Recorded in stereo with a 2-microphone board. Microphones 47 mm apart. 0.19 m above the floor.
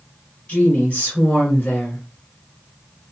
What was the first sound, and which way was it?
A woman speaking, 25° left (ahead or behind).